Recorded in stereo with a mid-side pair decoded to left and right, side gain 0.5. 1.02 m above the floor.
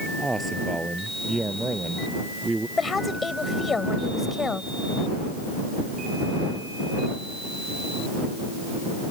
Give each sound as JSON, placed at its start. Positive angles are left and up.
{"t": 0.2, "sound": "a man speaking", "azimuth_deg": -15}
{"t": 2.8, "sound": "a woman speaking", "azimuth_deg": 30}